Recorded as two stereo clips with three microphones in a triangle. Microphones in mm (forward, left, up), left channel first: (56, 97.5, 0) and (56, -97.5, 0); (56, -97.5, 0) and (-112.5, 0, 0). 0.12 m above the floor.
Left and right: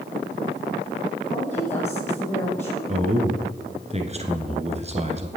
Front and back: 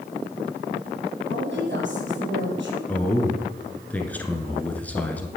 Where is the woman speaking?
165° left, 4.5 m.